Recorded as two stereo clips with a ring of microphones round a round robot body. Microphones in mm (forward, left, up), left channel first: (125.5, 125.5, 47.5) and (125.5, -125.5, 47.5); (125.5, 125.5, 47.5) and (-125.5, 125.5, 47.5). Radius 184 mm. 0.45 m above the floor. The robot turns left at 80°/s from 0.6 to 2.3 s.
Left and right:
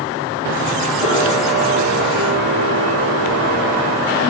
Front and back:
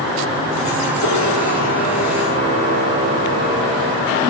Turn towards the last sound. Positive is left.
turn(degrees=115)